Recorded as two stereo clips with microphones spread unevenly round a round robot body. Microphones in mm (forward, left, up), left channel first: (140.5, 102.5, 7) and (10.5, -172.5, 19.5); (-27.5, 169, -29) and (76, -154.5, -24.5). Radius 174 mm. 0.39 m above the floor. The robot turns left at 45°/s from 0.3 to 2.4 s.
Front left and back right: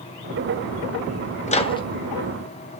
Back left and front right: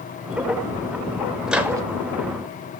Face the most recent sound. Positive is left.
turn(degrees=-25)